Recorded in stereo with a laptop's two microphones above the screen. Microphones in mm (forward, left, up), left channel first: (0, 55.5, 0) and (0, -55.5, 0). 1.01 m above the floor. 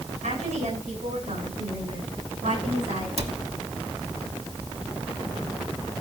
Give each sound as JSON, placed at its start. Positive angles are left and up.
{"t": 0.2, "sound": "a woman speaking", "side_deg": -80, "distance_m": 7.5}
{"t": 3.2, "sound": "a cupboard door", "side_deg": -60, "distance_m": 1.5}